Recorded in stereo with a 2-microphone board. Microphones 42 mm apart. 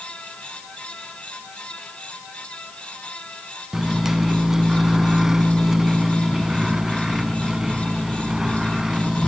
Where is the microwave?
10° right (ahead or behind), 1.0 m.